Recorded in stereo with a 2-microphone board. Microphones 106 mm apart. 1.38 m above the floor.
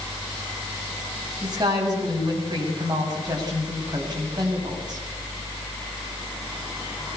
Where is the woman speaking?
40° right (ahead or behind), 7 m.